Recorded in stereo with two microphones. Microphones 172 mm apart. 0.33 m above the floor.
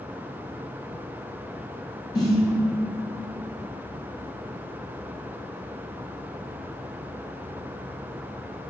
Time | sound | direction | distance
2.1 | a snare drum | 25° left (ahead or behind) | 1.8 m